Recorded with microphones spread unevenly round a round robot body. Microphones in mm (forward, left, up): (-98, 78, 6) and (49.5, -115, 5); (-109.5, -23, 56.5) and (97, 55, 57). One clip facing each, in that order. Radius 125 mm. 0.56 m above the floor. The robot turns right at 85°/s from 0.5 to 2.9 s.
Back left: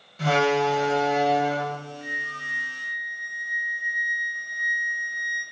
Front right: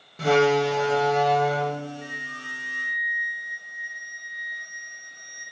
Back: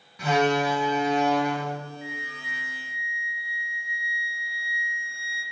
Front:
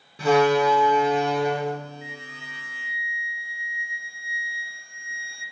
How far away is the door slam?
About 1.1 m.